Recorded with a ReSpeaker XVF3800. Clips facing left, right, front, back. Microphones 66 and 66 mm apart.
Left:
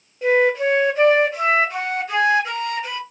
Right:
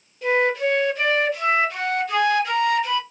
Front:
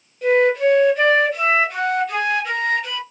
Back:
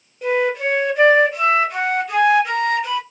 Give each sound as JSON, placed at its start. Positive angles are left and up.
{"t": 0.2, "sound": "a flute", "azimuth_deg": 105, "distance_m": 1.3}